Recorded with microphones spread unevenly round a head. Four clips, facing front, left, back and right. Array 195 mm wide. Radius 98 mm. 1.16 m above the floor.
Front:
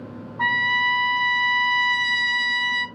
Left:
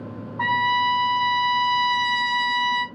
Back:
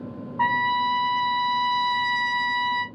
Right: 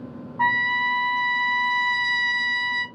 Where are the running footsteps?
I don't hear running footsteps.